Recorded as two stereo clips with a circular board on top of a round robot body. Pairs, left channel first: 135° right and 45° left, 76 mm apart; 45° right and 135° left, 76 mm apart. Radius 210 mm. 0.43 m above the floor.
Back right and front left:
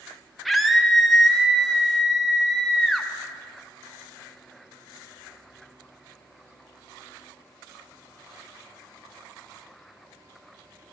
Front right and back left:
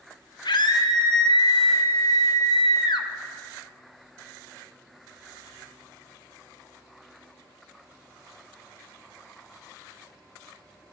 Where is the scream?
45° right, 2.5 m.